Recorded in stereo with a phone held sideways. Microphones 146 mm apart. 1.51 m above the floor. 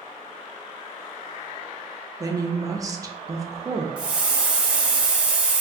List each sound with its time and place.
2.2 s a woman speaking: 25° right (ahead or behind), 0.5 m
4.0 s a hiss: 5° right (ahead or behind), 0.6 m